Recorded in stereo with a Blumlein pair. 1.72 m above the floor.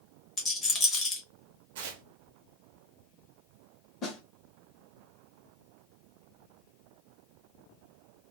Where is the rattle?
20° left, 1.2 m.